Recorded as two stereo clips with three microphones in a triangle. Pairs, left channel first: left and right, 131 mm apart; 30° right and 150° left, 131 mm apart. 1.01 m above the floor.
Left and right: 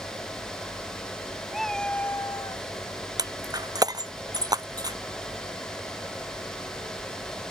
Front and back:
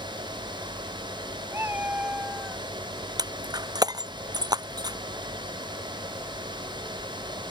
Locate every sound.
1.5 s a cat meowing: 175° right; by 2.7 s 55° left
3.2 s breaking glass: 150° right